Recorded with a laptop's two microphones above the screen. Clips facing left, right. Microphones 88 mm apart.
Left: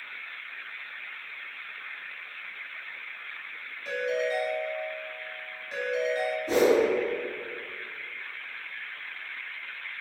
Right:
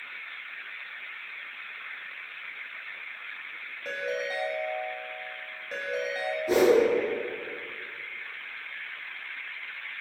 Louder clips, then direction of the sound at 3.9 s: Left 4 dB; 45° right (ahead or behind).